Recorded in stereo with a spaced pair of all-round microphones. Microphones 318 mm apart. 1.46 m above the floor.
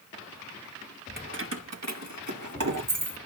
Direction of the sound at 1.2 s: 30° right (ahead or behind).